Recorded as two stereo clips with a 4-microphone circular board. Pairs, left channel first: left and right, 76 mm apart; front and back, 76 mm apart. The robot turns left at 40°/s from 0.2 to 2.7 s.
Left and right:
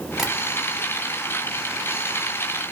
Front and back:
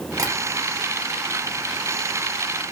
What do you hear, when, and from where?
0.2 s tapping: 175° right, 1.1 m; by 0.3 s straight behind, 1.1 m